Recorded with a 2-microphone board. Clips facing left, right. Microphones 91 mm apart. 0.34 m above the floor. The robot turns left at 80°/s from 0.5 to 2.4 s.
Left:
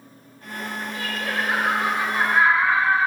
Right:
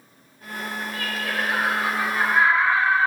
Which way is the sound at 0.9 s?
140° left.